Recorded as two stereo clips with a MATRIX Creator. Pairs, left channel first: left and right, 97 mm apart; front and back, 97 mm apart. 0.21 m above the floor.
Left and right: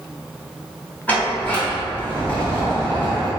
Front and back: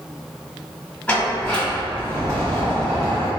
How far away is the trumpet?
No trumpet in this recording.